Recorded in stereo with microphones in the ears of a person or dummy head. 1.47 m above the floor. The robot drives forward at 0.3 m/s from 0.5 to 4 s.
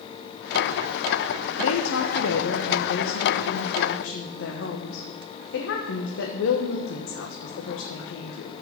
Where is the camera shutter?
No camera shutter in this recording.